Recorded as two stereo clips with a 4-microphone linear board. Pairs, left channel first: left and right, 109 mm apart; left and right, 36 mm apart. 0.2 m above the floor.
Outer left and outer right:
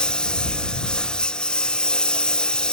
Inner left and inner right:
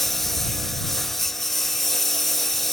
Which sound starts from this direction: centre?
A lawn mower, at 0.0 s.